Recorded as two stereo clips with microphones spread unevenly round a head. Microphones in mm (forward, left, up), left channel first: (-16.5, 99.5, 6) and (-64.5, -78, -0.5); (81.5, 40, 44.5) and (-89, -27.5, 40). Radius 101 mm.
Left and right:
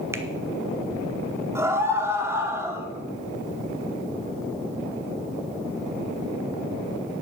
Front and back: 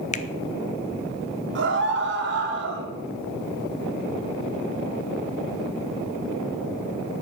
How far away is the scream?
About 3 m.